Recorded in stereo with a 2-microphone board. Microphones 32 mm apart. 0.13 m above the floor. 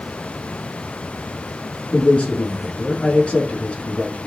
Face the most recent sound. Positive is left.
turn(degrees=50)  # may be behind; listen again after turning